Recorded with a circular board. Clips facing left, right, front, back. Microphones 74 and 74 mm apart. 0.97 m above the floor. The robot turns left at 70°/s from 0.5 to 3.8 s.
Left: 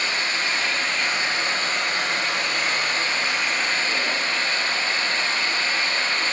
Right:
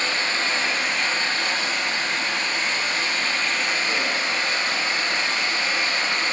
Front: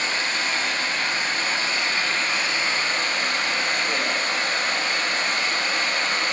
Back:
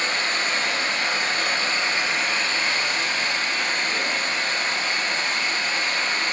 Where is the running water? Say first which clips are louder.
Right 1 dB, back 1 dB; 145° right, 3.5 m; by 6.3 s 15° right, 3.5 m.